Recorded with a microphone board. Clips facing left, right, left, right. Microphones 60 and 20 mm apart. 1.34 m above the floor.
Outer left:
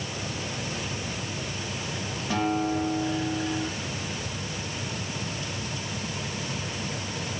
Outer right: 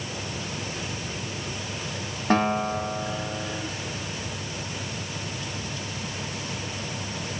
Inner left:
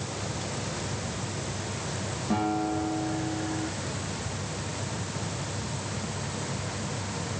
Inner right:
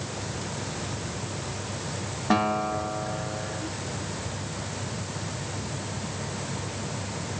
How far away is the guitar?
About 2 m.